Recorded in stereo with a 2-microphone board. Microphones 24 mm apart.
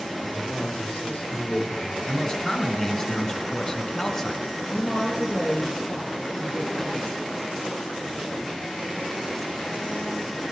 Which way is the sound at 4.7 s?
55° left (ahead or behind).